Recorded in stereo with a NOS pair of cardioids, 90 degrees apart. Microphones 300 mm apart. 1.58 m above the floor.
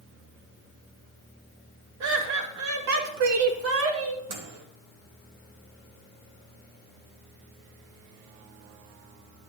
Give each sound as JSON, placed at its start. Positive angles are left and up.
{"t": 2.0, "sound": "laughter", "azimuth_deg": -70, "distance_m": 3.0}
{"t": 4.3, "sound": "a microwave", "azimuth_deg": -70, "distance_m": 1.9}